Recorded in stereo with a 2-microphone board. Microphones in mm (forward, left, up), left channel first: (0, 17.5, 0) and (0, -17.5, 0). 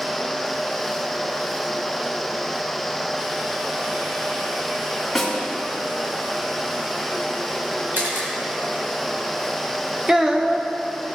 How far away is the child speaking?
About 0.9 m.